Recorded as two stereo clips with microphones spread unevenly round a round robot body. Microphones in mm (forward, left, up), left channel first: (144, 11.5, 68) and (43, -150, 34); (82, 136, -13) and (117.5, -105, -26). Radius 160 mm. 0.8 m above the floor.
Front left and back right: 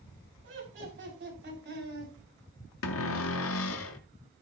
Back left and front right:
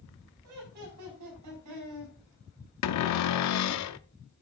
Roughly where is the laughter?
Behind right.